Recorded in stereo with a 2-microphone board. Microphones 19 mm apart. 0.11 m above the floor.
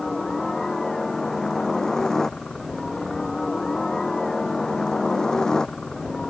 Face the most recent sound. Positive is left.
turn(degrees=45)  # may be behind; listen again after turning